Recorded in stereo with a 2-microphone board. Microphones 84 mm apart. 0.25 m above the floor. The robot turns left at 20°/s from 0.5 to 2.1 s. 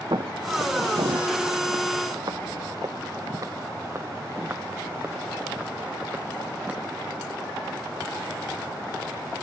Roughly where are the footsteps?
Right.